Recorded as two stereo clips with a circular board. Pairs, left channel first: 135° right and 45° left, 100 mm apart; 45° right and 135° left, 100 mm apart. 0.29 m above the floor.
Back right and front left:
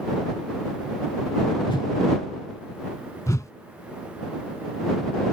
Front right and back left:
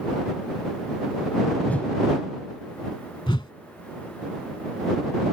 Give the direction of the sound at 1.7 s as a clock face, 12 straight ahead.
4 o'clock.